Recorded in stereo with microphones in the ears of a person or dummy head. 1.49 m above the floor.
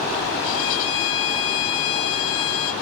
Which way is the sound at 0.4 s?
80° left.